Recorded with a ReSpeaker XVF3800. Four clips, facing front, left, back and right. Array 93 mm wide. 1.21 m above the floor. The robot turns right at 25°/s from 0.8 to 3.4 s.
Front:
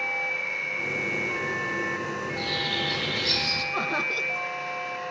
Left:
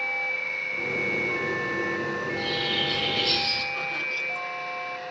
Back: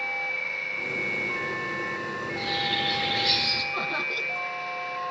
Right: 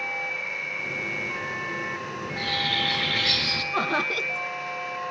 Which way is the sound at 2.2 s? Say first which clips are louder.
Left 1 dB, even; 100° right.